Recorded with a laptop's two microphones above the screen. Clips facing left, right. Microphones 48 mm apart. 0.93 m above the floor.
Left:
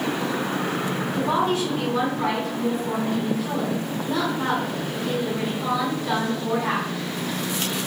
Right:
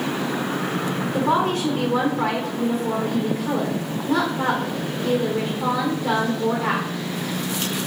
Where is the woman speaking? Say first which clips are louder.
Right 2 dB; 45° right (ahead or behind), 1.3 m.